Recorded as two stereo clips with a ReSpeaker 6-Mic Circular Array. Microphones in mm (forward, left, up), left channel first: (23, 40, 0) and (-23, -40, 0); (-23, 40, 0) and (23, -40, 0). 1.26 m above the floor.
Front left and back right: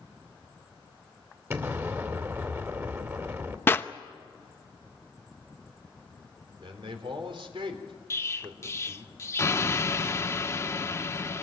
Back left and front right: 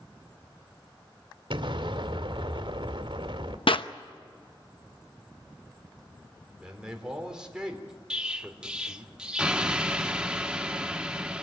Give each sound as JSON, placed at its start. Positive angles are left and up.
{"t": 1.5, "sound": "an explosion", "azimuth_deg": -60, "distance_m": 2.0}
{"t": 3.7, "sound": "a clap", "azimuth_deg": 125, "distance_m": 0.8}
{"t": 6.6, "sound": "a man speaking", "azimuth_deg": -140, "distance_m": 3.5}
{"t": 8.1, "sound": "an explosion", "azimuth_deg": 15, "distance_m": 0.9}